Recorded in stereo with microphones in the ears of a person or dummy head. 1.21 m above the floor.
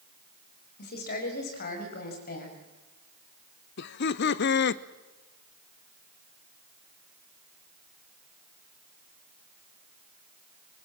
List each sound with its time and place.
0.8 s a woman speaking: 55° left (ahead or behind), 4.5 m; by 2.6 s 50° left (ahead or behind), 6 m
3.8 s laughter: 60° left (ahead or behind), 0.8 m